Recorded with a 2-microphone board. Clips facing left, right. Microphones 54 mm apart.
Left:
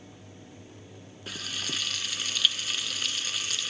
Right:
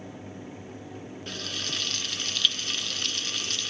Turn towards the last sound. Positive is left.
turn(degrees=0)  # may be behind; listen again after turning